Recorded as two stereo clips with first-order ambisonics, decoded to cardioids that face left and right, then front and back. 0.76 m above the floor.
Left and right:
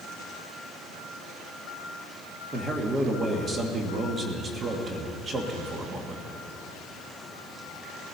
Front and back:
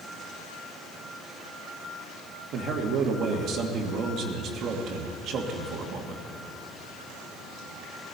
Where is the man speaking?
150° right, 1.5 m.